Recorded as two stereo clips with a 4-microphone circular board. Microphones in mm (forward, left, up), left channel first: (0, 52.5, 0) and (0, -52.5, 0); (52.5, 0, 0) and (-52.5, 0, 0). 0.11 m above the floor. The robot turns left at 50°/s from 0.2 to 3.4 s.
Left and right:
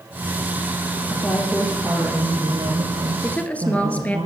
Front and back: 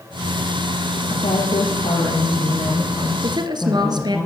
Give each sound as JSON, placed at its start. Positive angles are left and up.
{"t": 1.1, "sound": "a woman speaking", "azimuth_deg": 30, "distance_m": 3.0}
{"t": 3.2, "sound": "a woman speaking", "azimuth_deg": 170, "distance_m": 2.0}